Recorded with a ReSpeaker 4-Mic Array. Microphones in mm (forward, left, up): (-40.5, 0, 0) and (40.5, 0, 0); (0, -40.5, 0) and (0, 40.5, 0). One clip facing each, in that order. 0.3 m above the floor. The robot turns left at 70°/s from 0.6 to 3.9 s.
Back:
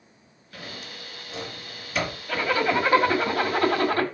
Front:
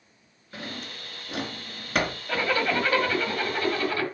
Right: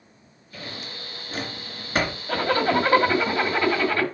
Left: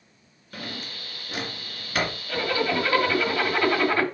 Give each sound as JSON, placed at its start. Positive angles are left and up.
{"t": 0.5, "sound": "a drawer", "azimuth_deg": 65, "distance_m": 2.0}
{"t": 2.3, "sound": "a zipper", "azimuth_deg": -75, "distance_m": 1.6}